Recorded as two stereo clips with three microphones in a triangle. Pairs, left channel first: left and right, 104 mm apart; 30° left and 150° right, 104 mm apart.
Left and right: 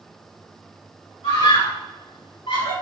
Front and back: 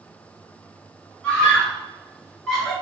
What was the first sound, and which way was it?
A scream, 110° left.